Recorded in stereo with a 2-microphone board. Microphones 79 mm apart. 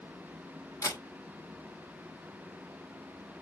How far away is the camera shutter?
About 1.7 m.